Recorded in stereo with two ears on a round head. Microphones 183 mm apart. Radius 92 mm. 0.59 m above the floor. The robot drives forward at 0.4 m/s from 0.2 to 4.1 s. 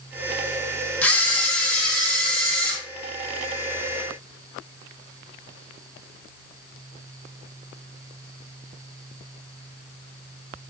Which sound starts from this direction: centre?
A camera shutter, at 1.0 s.